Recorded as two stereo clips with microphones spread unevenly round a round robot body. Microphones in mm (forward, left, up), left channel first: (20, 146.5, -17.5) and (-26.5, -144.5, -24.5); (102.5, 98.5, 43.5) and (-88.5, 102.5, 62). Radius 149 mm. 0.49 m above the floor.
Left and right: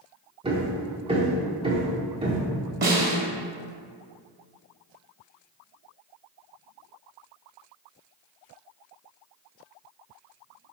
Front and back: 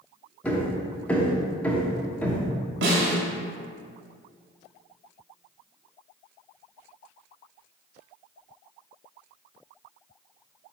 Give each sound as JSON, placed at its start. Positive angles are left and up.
{"t": 0.4, "sound": "hammering", "azimuth_deg": -60, "distance_m": 1.0}
{"t": 2.8, "sound": "a snare drum", "azimuth_deg": -150, "distance_m": 2.0}